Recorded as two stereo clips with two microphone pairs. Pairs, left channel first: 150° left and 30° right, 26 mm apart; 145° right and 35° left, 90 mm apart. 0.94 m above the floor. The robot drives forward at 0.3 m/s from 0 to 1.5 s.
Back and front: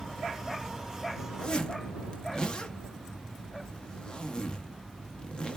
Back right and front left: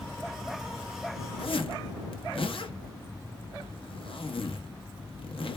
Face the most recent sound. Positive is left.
turn(degrees=-160)